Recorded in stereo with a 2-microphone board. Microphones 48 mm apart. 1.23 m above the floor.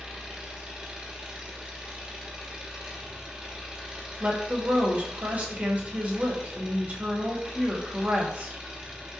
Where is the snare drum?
No snare drum in this recording.